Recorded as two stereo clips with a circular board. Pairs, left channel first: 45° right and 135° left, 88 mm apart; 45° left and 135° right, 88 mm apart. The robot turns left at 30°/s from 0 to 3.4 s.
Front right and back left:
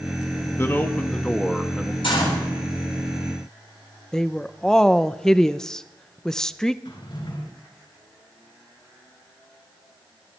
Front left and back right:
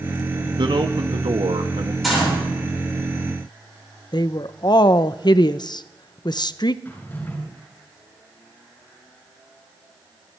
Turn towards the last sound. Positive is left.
turn(degrees=-25)